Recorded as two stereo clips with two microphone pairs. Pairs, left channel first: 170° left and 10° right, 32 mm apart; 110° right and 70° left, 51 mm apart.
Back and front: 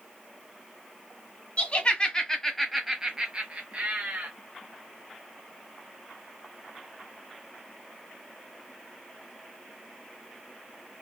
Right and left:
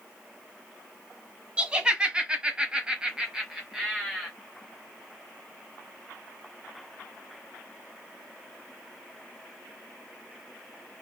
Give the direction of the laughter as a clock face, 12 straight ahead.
8 o'clock.